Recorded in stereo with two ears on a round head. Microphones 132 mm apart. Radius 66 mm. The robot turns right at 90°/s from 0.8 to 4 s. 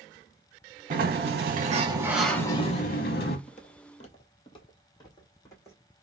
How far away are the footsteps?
About 0.7 m.